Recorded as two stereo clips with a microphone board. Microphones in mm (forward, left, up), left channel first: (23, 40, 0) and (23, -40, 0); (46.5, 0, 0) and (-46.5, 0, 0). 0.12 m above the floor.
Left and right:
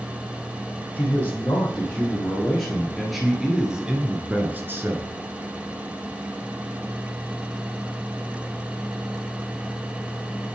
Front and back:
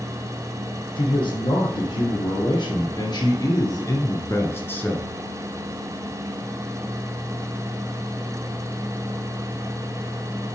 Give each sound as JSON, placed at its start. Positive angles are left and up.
{"t": 0.9, "sound": "a man speaking", "azimuth_deg": 20, "distance_m": 3.5}